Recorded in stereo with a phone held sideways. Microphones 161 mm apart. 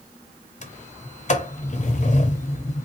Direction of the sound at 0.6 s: 50° left (ahead or behind).